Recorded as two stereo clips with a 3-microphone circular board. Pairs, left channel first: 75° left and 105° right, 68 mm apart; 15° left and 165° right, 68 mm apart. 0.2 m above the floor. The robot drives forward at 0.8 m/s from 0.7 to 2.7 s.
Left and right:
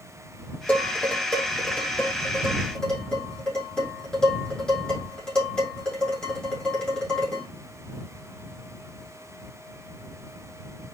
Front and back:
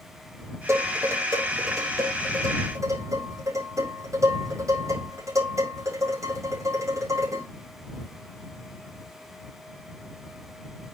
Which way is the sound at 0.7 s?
150° left.